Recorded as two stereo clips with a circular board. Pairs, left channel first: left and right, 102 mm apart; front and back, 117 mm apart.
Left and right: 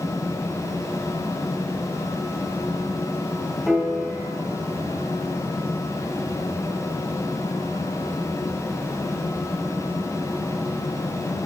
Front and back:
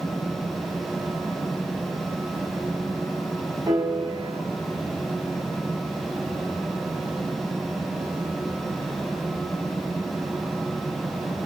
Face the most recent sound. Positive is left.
turn(degrees=175)